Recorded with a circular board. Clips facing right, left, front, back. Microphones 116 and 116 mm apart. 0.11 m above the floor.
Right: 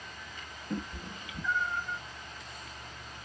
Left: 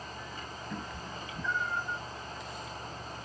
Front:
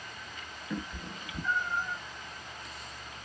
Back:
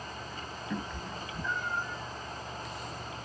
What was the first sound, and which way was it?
A cat meowing, 90° right.